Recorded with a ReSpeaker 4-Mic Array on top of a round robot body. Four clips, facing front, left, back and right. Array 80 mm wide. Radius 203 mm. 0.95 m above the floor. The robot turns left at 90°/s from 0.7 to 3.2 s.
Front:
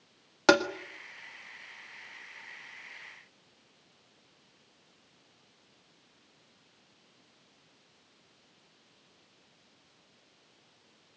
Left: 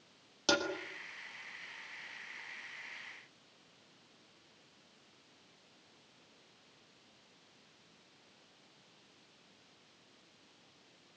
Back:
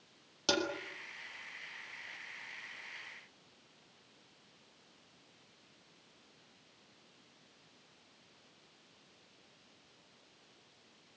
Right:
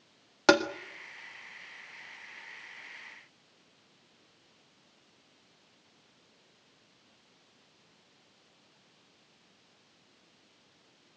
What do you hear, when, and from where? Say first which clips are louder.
0.5 s tapping: right 10 dB, front 11 dB; 45° right, 1.9 m